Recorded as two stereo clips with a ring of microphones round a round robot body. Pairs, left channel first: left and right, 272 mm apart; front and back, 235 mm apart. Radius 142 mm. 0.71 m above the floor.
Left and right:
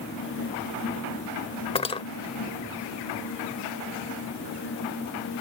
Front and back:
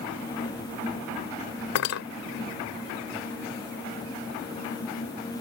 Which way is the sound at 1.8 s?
20° left.